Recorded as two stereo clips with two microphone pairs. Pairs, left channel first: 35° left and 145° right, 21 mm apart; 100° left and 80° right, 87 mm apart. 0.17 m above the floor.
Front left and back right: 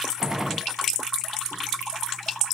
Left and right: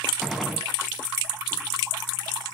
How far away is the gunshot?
About 0.7 m.